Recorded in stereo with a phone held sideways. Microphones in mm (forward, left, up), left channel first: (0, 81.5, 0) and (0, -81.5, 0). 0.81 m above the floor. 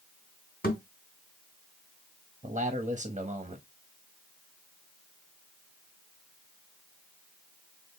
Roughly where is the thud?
Left.